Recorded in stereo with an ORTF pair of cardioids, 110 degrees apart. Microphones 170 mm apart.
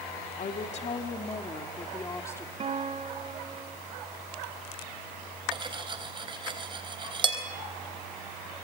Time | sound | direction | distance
0.4 | a woman speaking | 45° left | 2.5 m
2.6 | a guitar | 40° right | 2.5 m
5.5 | cutlery clinking | 30° right | 4 m